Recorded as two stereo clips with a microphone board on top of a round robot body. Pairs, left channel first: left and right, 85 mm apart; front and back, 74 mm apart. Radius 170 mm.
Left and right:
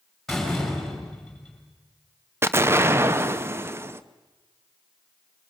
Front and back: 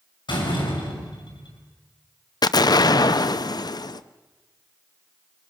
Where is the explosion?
30° right, 0.7 m.